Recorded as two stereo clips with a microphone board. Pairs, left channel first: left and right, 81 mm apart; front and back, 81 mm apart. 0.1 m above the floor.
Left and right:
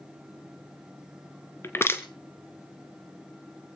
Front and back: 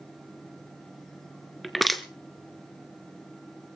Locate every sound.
1.6 s crushing: 90° left, 1.2 m